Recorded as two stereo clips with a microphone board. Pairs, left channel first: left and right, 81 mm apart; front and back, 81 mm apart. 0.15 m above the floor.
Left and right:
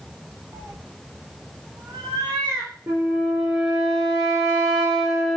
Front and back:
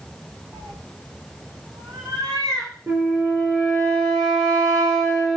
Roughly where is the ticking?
No ticking in this recording.